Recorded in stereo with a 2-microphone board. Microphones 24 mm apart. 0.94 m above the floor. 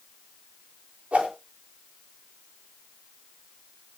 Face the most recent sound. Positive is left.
turn(degrees=-65)  # may be behind; listen again after turning